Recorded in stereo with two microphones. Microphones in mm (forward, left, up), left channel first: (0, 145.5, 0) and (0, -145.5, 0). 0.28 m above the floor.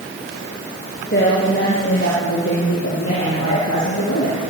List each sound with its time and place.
1.1 s a woman speaking: 35° left (ahead or behind), 6.5 m; by 4.4 s 65° left (ahead or behind), 8.5 m